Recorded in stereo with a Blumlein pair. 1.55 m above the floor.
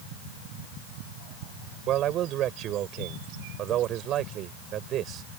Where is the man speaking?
30° right.